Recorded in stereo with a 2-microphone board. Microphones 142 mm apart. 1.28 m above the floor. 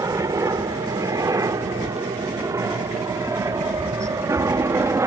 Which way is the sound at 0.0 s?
25° right (ahead or behind).